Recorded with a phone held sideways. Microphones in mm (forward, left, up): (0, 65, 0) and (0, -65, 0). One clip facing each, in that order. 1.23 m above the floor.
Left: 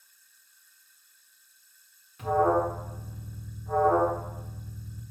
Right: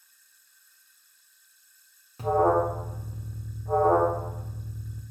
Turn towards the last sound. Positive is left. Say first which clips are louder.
# right 2 dB
turn(degrees=-35)  # may be behind; listen again after turning